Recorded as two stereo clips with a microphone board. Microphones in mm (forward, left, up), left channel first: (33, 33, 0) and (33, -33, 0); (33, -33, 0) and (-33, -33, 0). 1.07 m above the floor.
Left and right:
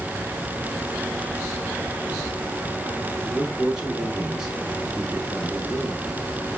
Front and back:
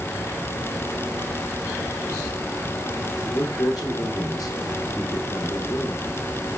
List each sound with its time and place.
3.2 s a man speaking: 5° right, 3 m